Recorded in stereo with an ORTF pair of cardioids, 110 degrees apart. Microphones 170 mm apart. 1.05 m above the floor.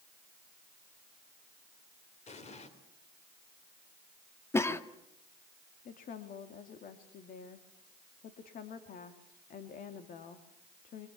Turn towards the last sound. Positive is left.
turn(degrees=55)